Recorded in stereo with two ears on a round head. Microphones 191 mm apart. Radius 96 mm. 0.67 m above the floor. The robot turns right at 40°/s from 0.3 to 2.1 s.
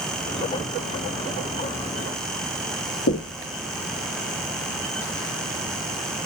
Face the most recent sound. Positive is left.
turn(degrees=55)  # may be behind; listen again after turning